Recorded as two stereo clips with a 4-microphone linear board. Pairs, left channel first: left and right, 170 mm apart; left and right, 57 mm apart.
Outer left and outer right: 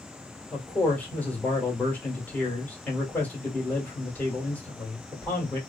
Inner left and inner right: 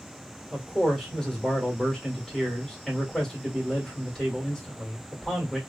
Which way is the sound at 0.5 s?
10° left (ahead or behind).